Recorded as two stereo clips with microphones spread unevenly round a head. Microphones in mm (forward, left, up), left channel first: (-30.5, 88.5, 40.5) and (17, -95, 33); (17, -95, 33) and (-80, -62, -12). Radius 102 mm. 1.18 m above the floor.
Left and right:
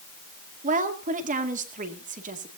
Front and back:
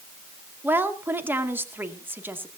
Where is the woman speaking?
125° right, 2 m.